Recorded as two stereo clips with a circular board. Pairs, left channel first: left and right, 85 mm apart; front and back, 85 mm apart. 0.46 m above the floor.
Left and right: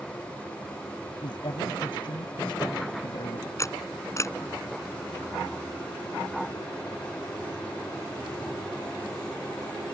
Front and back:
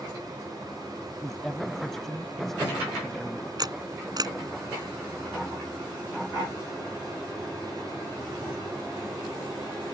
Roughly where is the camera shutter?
Behind left.